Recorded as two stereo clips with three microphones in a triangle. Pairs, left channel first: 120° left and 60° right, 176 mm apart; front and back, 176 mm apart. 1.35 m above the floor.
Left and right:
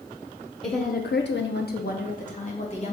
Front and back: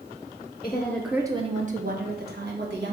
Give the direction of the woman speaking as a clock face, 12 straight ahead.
10 o'clock.